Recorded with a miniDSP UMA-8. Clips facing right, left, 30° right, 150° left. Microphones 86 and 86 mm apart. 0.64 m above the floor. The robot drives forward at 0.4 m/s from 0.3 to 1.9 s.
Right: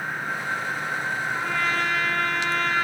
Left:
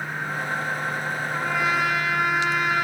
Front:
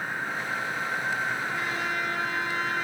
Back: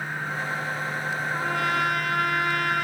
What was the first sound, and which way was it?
A trumpet, 170° left.